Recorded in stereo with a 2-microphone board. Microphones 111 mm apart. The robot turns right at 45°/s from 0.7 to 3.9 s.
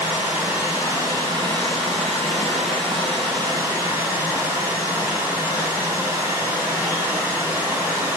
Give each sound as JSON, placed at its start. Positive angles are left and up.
{"t": 0.0, "sound": "running water", "azimuth_deg": -170, "distance_m": 1.6}